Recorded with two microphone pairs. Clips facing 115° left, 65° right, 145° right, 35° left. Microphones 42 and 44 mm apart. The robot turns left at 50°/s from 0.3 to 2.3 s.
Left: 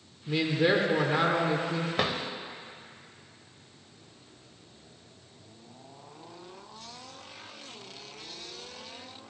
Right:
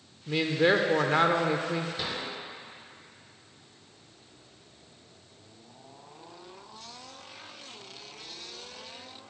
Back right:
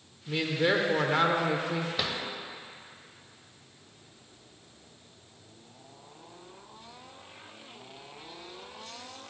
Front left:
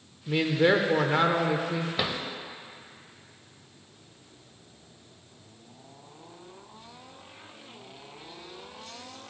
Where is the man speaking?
Straight ahead, 0.8 m; by 1.9 s 80° right, 0.8 m.